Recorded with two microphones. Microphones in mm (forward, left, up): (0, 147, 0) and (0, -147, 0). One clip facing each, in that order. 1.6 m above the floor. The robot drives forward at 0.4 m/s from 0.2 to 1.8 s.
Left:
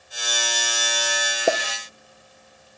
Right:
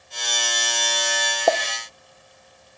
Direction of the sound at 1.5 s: 20° left (ahead or behind).